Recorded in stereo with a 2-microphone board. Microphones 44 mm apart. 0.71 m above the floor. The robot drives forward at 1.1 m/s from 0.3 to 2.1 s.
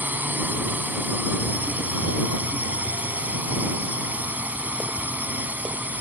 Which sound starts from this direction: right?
A drone, at 0.0 s.